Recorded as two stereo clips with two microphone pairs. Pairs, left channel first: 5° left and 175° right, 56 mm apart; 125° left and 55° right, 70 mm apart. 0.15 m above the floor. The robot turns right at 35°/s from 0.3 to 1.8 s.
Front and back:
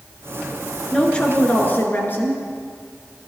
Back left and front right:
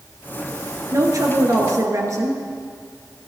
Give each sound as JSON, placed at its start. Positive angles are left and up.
{"t": 0.9, "sound": "a woman speaking", "azimuth_deg": -65, "distance_m": 2.0}